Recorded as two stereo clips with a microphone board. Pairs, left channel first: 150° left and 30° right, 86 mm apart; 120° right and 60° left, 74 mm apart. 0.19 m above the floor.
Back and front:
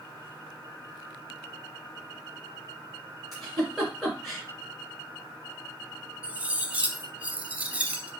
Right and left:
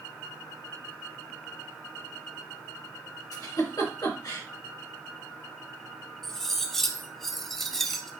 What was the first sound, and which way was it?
A giggle, 120° right.